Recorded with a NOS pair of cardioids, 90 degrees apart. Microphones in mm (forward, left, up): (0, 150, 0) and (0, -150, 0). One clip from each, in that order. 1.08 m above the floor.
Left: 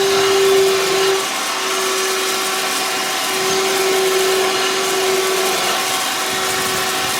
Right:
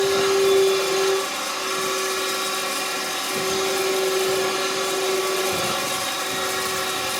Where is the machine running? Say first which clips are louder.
Left 5 dB; 40° left, 0.8 m.